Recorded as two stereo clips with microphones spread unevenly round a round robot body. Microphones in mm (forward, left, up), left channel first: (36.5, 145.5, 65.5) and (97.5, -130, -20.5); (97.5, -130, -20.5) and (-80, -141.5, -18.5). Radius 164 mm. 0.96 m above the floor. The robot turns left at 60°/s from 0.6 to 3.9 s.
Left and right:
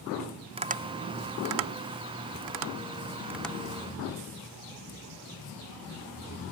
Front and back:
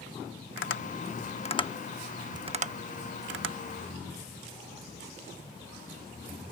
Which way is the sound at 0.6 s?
Straight ahead.